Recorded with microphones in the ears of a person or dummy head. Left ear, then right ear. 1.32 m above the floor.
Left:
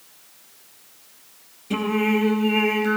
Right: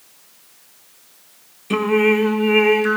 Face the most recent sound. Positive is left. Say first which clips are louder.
# right 7 dB
turn(degrees=-45)  # may be behind; listen again after turning